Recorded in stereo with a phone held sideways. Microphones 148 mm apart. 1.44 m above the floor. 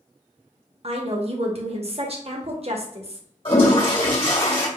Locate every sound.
0.8 s a woman speaking: 45° right (ahead or behind), 0.9 m
3.5 s a toilet flushing: 40° left (ahead or behind), 1.7 m